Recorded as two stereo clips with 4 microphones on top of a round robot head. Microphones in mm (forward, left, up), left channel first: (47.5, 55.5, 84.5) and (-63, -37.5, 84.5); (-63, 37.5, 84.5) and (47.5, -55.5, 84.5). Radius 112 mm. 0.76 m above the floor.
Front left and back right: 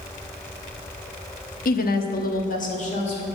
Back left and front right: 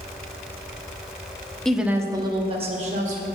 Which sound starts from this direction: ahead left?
A woman speaking, at 1.6 s.